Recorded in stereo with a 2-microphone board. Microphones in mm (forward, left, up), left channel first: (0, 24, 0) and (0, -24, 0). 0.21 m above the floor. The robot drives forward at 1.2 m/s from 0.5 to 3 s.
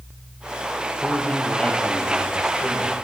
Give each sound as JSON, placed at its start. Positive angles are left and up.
{"t": 1.0, "sound": "a man speaking", "side_deg": 30, "distance_m": 4.0}